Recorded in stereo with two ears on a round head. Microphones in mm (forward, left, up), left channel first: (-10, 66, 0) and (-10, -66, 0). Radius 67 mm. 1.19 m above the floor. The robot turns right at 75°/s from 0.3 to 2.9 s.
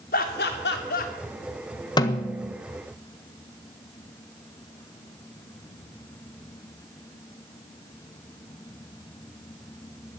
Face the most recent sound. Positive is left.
turn(degrees=-145)